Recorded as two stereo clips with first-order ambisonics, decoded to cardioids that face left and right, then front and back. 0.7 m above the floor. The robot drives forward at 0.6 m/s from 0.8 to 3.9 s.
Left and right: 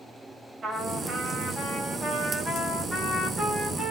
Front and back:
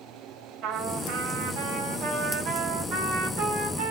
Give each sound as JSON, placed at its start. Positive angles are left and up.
{"t": 0.6, "sound": "a trumpet", "azimuth_deg": -160, "distance_m": 1.5}